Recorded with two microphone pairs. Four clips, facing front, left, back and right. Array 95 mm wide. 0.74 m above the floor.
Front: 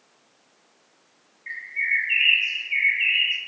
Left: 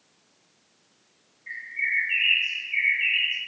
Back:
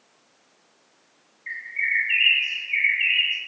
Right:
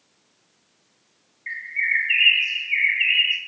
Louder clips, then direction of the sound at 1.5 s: Right 5 dB, even; 90° right.